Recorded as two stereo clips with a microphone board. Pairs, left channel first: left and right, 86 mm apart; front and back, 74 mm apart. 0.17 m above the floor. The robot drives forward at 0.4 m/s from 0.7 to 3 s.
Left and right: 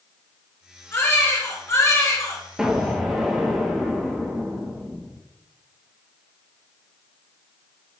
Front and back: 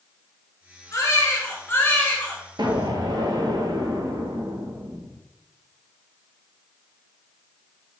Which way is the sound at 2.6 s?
175° right.